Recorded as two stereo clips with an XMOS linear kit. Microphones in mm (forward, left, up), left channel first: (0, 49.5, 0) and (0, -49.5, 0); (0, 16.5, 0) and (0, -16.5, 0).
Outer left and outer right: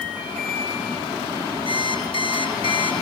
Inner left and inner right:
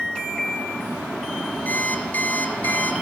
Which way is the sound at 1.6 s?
65° left (ahead or behind).